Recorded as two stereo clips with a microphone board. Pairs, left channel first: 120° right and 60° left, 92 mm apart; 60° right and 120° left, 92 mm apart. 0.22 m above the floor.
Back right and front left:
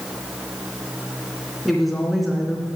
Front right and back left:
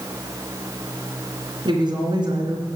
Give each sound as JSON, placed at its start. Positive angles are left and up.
{"t": 1.6, "sound": "a woman speaking", "azimuth_deg": 150, "distance_m": 3.0}